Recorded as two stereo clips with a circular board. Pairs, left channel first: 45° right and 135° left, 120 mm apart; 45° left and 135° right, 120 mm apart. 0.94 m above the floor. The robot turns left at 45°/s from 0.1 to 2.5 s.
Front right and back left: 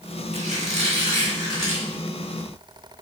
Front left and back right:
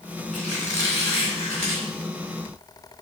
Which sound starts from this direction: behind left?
A squeak, at 0.3 s.